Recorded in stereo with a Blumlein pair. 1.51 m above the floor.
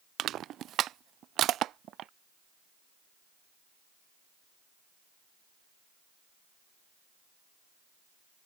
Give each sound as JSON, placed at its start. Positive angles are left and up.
{"t": 0.2, "sound": "crushing", "azimuth_deg": -30}